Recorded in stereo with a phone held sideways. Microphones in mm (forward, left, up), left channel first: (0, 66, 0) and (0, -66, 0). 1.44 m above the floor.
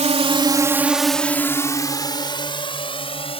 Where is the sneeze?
I don't hear a sneeze.